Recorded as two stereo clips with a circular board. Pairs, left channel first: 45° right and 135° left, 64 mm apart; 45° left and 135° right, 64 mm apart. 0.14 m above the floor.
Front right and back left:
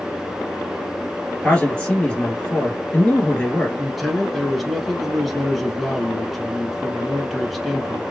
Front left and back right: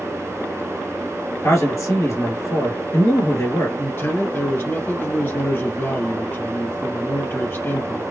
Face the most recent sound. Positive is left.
turn(degrees=45)